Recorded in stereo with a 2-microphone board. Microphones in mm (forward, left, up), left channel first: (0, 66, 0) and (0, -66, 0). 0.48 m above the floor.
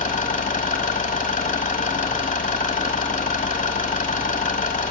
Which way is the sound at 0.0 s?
80° left.